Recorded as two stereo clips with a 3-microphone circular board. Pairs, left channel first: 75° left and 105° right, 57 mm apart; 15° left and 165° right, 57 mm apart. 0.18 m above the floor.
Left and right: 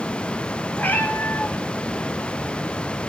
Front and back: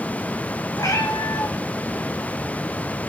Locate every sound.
0.8 s a cat meowing: 15° left, 4 m